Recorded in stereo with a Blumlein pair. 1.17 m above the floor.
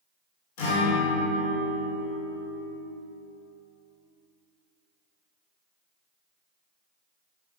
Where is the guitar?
45° left, 0.8 m.